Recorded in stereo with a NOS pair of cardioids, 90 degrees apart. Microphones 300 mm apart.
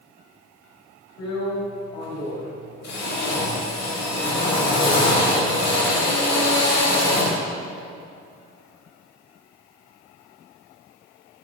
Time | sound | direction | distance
1.2 | a drill | 60° left | 5.5 m